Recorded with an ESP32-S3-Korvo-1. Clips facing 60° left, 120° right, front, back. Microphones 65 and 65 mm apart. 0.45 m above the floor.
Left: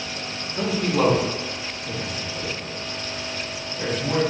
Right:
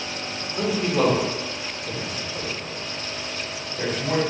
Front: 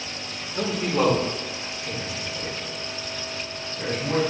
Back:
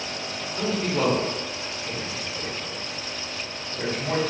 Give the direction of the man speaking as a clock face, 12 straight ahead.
2 o'clock.